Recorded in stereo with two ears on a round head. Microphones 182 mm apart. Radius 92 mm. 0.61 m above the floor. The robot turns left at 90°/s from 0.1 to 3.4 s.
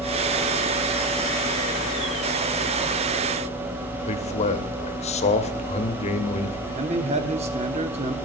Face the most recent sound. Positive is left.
turn(degrees=-30)  # may be behind; listen again after turning